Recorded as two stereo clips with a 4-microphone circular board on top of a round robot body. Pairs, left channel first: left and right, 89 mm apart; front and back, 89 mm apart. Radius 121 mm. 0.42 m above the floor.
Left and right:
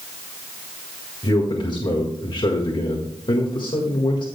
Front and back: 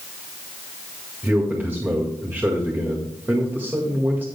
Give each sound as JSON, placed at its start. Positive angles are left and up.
{"t": 1.2, "sound": "a man speaking", "azimuth_deg": 115, "distance_m": 1.8}